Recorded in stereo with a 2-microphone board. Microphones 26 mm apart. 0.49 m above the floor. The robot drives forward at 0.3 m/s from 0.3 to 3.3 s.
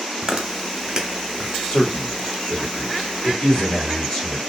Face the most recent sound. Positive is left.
turn(degrees=35)  # may be behind; listen again after turning